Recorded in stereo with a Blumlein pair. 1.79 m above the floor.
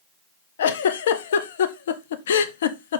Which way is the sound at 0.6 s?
60° left.